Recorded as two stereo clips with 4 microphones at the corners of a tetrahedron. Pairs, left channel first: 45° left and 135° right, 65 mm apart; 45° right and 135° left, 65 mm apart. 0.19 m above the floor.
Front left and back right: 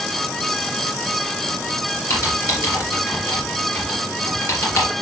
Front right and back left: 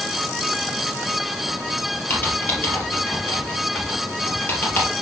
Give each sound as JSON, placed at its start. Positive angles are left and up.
{"t": 2.1, "sound": "typing on a keyboard", "azimuth_deg": 5, "distance_m": 3.0}